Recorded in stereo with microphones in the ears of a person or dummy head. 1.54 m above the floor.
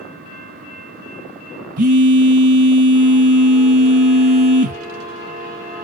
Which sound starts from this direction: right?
A phone buzzing, at 1.8 s.